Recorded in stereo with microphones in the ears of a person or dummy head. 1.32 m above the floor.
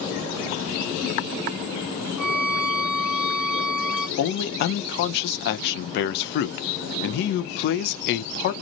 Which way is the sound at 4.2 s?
65° left (ahead or behind).